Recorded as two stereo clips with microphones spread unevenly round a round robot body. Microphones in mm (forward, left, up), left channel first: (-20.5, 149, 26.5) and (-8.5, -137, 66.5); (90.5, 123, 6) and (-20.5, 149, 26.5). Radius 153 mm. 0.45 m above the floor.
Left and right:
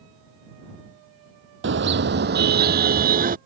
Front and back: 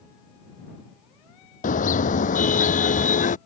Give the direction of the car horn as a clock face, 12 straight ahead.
1 o'clock.